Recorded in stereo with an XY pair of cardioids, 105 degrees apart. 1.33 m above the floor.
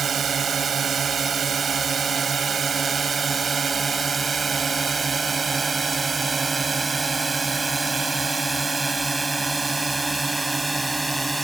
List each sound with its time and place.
0.0 s a drone: 45° right; by 11.5 s 10° right